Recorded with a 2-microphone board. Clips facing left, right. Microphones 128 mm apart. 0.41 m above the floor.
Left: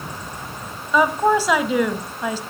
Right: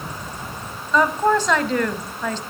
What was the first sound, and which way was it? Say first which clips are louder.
A woman speaking: left 1 dB; 10° left (ahead or behind).